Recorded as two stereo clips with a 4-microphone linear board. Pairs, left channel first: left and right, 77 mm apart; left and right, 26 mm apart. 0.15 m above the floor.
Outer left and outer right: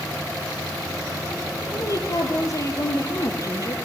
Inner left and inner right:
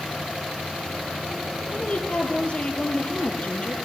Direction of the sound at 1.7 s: 45° left (ahead or behind).